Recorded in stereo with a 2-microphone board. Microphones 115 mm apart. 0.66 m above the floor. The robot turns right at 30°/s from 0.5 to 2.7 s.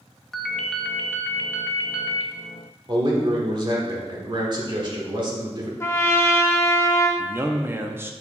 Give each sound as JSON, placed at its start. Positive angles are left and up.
{"t": 0.3, "sound": "a ringtone", "azimuth_deg": 5, "distance_m": 0.6}
{"t": 2.9, "sound": "a man speaking", "side_deg": -40, "distance_m": 1.5}
{"t": 5.8, "sound": "a trumpet", "side_deg": 25, "distance_m": 0.7}
{"t": 7.2, "sound": "a man speaking", "side_deg": -20, "distance_m": 0.6}